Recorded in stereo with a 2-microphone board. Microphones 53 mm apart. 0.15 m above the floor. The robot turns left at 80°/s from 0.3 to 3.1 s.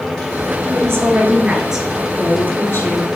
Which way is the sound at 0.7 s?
85° right.